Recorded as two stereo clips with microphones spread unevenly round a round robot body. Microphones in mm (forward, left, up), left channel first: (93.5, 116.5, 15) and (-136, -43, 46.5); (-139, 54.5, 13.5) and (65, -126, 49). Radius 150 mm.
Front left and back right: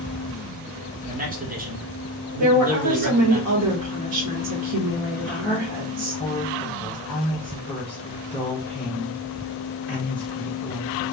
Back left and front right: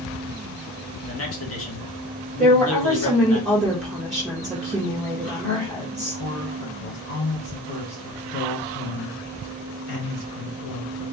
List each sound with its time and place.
1.0 s a man speaking: 155° left, 1.3 m
2.4 s a woman speaking: 140° right, 1.1 m
5.2 s a woman speaking: 115° left, 1.4 m